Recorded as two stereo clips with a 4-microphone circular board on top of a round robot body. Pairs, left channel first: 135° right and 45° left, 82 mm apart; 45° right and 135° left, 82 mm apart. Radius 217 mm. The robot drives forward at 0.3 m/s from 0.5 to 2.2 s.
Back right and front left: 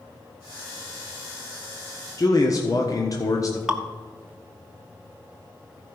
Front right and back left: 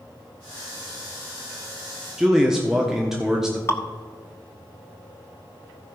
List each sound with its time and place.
2.2 s a man speaking: 145° right, 1.4 m
3.7 s dripping: 30° right, 1.4 m